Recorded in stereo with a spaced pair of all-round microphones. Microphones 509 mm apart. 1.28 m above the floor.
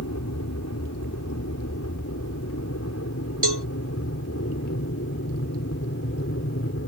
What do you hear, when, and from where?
0.0 s an aircraft: 30° left (ahead or behind); by 6.9 s 25° left (ahead or behind)
3.4 s a cowbell: 50° right (ahead or behind)